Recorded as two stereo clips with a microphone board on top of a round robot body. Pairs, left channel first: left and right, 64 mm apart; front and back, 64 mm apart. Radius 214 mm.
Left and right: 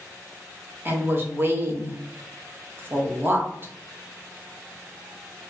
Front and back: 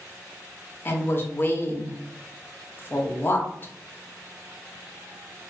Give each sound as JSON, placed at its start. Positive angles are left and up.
{"t": 0.8, "sound": "a woman speaking", "azimuth_deg": -45, "distance_m": 0.8}